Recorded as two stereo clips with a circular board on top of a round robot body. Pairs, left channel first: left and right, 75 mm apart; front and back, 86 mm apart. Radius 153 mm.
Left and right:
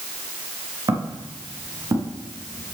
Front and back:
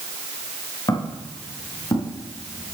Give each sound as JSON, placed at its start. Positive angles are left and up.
{"t": 0.9, "sound": "footsteps", "azimuth_deg": -50, "distance_m": 5.5}